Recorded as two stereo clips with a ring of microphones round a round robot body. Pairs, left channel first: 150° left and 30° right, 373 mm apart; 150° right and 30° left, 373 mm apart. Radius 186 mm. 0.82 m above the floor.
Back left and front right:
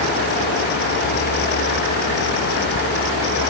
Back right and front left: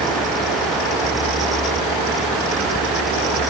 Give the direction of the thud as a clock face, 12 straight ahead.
No thud in this recording.